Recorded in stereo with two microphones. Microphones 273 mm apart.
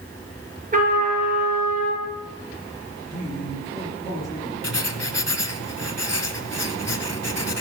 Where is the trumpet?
30° right (ahead or behind), 4 m.